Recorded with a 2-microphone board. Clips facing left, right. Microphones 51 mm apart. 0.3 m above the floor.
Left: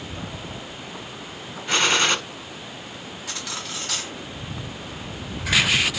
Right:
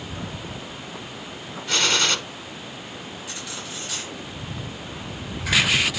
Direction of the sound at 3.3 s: 65° left (ahead or behind).